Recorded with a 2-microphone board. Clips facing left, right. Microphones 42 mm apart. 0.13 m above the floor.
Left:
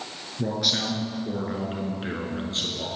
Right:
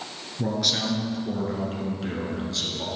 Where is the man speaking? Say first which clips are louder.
Even; centre (ahead or behind), 1.9 m; by 2.9 s 40° left (ahead or behind), 1.6 m.